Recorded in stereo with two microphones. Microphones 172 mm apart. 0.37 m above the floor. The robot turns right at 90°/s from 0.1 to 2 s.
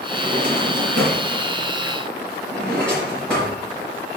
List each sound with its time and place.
0.1 s a drawer: 15° right (ahead or behind), 4 m; by 3.6 s 5° left (ahead or behind), 4 m